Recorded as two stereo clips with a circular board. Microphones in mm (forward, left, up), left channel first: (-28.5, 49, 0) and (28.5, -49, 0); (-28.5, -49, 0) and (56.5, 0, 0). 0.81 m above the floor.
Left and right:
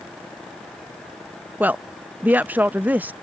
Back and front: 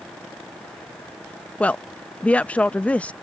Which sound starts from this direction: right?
A woman speaking, at 1.6 s.